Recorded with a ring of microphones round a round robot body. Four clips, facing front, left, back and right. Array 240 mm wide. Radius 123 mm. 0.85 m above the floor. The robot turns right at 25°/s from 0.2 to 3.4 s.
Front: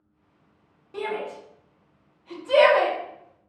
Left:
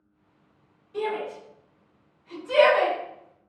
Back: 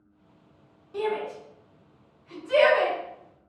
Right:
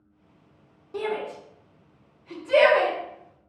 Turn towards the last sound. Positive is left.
turn(degrees=-5)